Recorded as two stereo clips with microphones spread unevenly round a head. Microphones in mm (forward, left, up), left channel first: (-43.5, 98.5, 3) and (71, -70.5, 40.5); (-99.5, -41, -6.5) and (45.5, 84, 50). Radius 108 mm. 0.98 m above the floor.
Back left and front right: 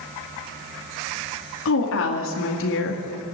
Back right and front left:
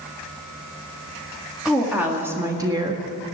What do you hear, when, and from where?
1.6 s a woman speaking: 130° left, 2 m; by 3.0 s 110° left, 1.7 m